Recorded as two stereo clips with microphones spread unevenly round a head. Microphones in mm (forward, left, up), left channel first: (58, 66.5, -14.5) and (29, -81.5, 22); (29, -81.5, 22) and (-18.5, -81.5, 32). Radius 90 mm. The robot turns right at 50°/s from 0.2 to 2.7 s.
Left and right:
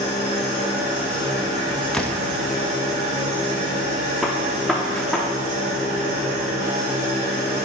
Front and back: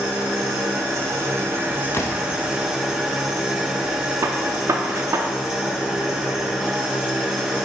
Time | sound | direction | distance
0.0 | an engine running | 130° left | 3 m
1.9 | a door slam | 5° right | 0.8 m
4.2 | a gunshot | 175° left | 0.6 m